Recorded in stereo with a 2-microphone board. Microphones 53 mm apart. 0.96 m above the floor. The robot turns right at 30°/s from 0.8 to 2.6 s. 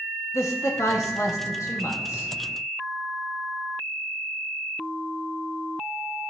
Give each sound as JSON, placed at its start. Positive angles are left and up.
{"t": 0.3, "sound": "a man speaking", "azimuth_deg": 75, "distance_m": 1.3}